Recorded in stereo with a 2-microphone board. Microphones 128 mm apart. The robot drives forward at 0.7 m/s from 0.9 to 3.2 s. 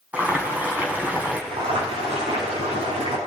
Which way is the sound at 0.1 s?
10° right (ahead or behind).